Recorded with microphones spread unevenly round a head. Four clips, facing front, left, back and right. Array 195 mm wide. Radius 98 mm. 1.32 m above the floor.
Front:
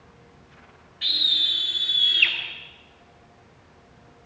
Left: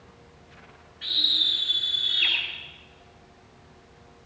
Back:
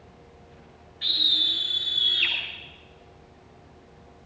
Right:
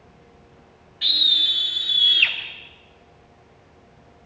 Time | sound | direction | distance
1.0 | a scream | 85° right | 5 m